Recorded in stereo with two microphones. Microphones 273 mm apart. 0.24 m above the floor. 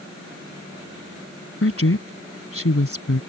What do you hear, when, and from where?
1.6 s a woman speaking: 55° left (ahead or behind)